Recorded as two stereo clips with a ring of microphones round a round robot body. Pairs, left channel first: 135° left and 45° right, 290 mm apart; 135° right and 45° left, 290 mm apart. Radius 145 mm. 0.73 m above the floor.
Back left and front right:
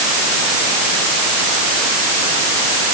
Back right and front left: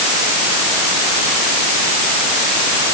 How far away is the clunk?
I don't hear a clunk.